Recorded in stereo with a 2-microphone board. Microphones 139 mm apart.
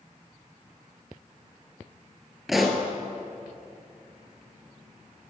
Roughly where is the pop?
Centre.